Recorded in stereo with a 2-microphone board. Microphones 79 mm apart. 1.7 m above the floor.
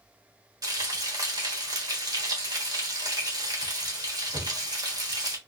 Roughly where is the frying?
Right.